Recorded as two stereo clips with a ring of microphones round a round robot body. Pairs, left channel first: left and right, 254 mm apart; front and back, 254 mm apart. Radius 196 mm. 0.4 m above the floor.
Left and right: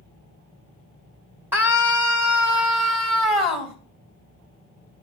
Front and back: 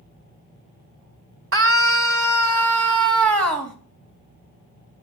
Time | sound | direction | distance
1.5 | a scream | 170° right | 1.8 m